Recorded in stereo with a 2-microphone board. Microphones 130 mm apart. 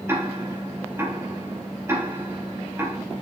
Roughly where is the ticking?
Centre.